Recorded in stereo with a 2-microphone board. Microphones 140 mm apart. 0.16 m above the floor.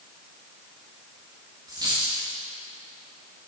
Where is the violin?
No violin in this recording.